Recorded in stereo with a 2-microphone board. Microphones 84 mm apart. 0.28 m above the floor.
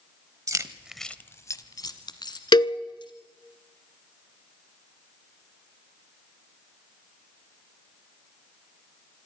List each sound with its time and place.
0.5 s keys jangling: 45° right (ahead or behind), 1.0 m; by 3.1 s 65° left (ahead or behind), 3.5 m
2.5 s a cowbell: 65° left (ahead or behind), 0.6 m